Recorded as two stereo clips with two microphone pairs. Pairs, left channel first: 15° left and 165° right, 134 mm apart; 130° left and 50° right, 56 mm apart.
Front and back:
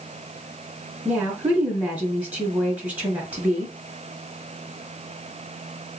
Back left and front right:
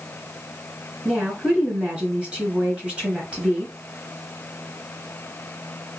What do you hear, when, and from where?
1.1 s a woman speaking: 95° right, 1.5 m